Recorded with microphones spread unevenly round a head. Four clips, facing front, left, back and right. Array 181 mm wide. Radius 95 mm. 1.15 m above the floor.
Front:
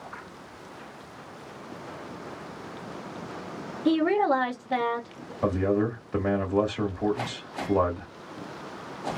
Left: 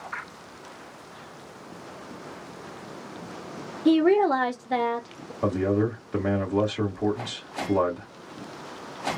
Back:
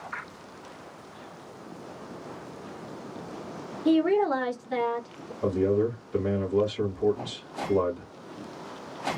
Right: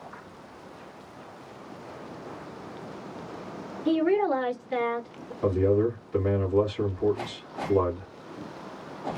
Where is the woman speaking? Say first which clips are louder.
Left 4 dB, even; 80° left, 2 m.